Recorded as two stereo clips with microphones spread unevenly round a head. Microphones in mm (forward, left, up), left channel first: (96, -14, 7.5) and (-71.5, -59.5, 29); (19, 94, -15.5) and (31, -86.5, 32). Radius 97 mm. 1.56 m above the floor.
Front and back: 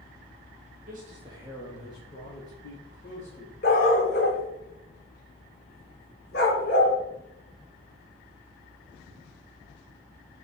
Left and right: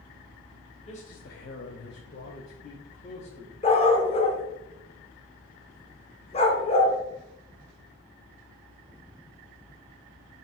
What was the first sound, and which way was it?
A man speaking, 150° left.